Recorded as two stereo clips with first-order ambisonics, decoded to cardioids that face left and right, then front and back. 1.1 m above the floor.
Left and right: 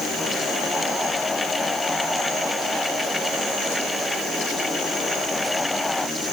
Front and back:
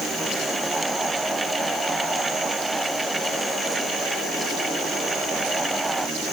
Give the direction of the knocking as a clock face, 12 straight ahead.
I don't hear knocking.